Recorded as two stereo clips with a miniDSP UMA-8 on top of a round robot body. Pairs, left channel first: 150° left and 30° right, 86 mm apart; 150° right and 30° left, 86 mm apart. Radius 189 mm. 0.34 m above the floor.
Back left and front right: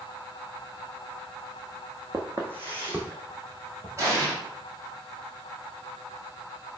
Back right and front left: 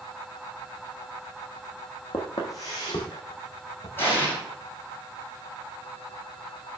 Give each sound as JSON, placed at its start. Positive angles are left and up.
{"t": 2.1, "sound": "footsteps", "azimuth_deg": -95, "distance_m": 0.8}
{"t": 4.0, "sound": "an explosion", "azimuth_deg": -85, "distance_m": 2.5}